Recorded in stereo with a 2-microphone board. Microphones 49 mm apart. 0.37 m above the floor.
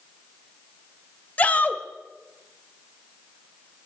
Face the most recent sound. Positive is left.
turn(degrees=30)  # may be behind; listen again after turning